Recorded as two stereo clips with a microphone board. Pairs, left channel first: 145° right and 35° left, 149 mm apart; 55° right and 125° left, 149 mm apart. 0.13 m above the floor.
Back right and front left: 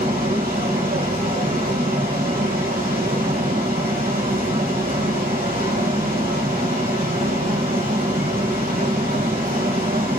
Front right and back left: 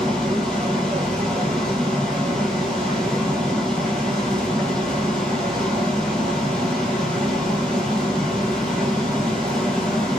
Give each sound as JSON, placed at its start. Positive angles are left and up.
{"t": 0.0, "sound": "running water", "azimuth_deg": 30, "distance_m": 1.7}